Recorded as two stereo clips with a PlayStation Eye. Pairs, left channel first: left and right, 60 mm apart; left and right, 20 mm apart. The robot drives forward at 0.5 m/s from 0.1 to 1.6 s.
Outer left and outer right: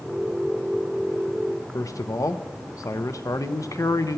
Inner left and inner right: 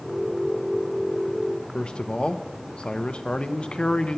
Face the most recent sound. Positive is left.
turn(degrees=65)  # may be behind; listen again after turning